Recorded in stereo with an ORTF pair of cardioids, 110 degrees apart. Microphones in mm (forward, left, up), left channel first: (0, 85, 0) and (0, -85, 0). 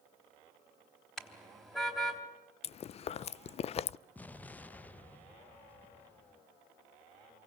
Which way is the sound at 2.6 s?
40° left.